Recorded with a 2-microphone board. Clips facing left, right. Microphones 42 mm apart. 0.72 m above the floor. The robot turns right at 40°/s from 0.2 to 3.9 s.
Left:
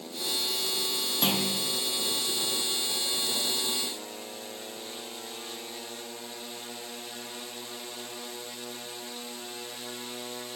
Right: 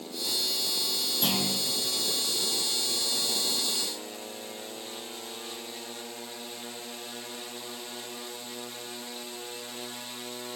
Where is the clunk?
30° left (ahead or behind), 0.6 m; by 1.6 s 25° left (ahead or behind), 0.6 m.